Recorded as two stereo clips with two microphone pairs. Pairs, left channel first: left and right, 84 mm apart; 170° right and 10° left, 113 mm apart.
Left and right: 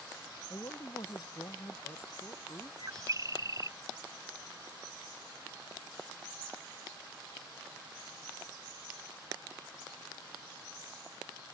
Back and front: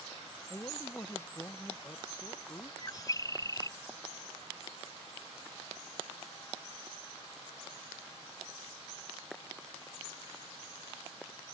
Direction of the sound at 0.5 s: 125° left.